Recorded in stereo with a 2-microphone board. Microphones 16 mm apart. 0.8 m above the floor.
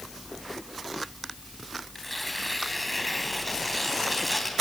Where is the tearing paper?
5° left (ahead or behind), 2.5 m.